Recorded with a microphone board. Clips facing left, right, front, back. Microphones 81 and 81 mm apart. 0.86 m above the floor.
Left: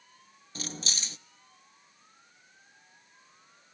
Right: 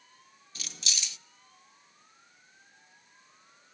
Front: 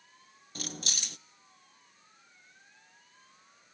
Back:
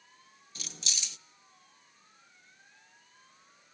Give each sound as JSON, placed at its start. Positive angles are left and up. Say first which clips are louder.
{"t": 0.6, "sound": "keys jangling", "louder": "left 4 dB, front 5 dB", "azimuth_deg": 35, "distance_m": 0.5}